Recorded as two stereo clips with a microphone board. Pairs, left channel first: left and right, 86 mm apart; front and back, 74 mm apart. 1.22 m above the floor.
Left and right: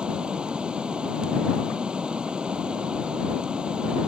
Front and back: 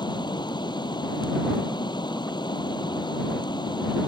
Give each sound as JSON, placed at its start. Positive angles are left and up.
{"t": 0.0, "sound": "running water", "azimuth_deg": -10}